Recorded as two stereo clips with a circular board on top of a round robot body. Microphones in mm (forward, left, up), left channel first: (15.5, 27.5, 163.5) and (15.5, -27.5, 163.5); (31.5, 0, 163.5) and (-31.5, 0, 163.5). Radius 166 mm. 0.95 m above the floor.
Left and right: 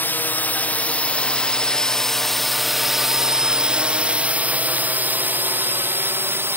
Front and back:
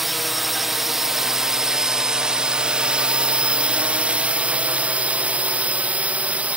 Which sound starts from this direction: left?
A drone, at 0.0 s.